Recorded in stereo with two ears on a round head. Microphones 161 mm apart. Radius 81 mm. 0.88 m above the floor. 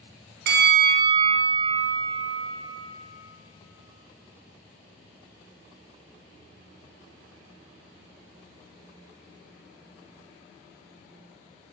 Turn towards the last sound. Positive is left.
turn(degrees=-60)  # may be behind; listen again after turning